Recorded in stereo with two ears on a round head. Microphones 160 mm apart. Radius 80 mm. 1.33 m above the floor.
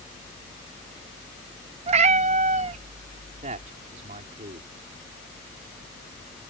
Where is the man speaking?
40° right (ahead or behind).